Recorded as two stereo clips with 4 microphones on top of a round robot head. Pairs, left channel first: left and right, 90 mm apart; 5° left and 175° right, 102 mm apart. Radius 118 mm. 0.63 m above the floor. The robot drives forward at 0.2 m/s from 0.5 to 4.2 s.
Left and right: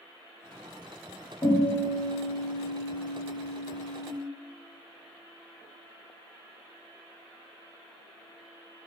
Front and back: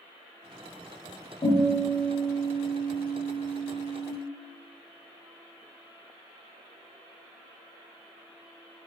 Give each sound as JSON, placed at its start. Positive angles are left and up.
{"t": 1.4, "sound": "a guitar", "azimuth_deg": 45, "distance_m": 1.1}